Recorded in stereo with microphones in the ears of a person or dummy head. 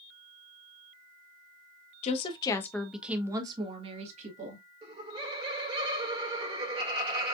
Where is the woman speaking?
45° left (ahead or behind), 0.9 m; by 4.6 s 40° right (ahead or behind), 1.7 m.